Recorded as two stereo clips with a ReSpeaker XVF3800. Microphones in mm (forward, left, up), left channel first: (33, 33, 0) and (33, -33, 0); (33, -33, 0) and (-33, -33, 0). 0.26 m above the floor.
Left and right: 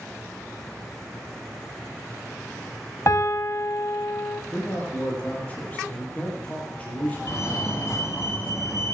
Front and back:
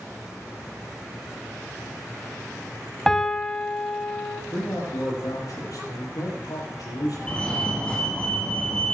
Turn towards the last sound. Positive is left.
turn(degrees=70)